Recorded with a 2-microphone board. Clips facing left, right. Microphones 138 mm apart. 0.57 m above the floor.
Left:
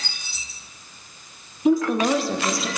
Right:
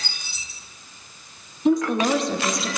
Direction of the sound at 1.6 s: 5° left (ahead or behind).